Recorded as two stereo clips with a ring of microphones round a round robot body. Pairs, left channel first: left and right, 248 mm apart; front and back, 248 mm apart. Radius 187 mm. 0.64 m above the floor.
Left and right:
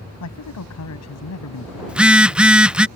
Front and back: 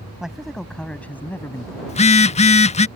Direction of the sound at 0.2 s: 90° left.